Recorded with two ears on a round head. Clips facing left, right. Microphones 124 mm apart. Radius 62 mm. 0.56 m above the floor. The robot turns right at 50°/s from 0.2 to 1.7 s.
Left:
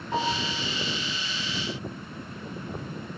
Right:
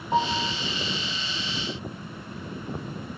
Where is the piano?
20° right (ahead or behind), 7 m; by 0.6 s 40° right (ahead or behind), 7 m.